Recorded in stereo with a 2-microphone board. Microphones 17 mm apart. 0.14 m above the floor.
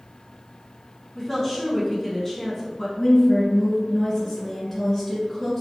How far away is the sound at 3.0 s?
About 1.4 m.